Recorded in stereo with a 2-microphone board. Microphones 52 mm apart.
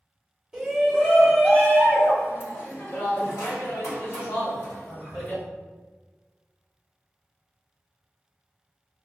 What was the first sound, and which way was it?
A shout, centre (ahead or behind).